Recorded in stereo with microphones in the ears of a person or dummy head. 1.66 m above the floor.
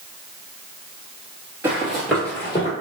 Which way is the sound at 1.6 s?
10° right (ahead or behind).